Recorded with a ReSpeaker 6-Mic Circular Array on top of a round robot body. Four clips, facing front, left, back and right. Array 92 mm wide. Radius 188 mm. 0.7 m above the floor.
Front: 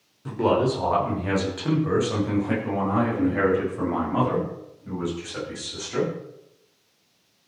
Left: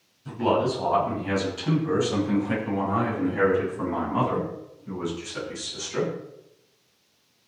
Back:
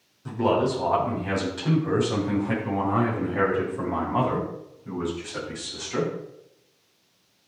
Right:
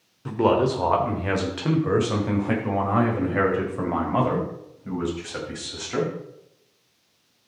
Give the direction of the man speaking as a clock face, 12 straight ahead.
3 o'clock.